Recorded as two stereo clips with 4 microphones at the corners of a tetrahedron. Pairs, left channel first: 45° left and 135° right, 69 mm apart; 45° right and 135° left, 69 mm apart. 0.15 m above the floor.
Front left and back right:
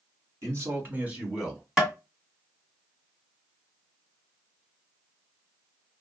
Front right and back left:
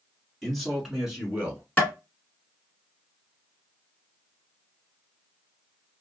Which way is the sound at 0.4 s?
130° right.